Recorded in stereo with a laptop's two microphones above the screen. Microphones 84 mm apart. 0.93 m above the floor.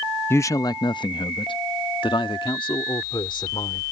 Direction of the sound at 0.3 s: 30° left (ahead or behind).